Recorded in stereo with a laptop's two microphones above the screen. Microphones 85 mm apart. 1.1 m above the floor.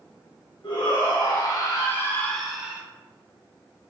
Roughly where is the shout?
Left.